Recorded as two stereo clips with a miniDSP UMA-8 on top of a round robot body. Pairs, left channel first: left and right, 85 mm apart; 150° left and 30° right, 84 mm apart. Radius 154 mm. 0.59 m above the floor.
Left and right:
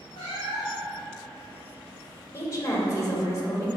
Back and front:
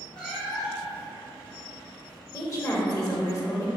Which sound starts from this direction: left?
A cat meowing, at 0.1 s.